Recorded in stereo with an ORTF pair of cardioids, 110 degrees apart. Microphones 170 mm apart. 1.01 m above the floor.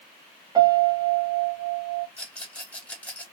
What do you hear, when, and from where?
0.6 s a piano: 25° right, 1.5 m
2.2 s a rattle: 5° left, 2.0 m